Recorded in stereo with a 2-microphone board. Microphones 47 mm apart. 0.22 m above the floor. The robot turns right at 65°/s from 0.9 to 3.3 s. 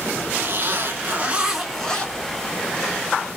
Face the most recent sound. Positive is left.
turn(degrees=105)